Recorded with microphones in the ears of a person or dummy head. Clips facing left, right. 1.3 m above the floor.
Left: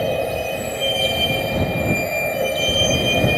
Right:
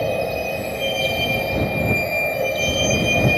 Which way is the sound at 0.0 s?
5° left (ahead or behind).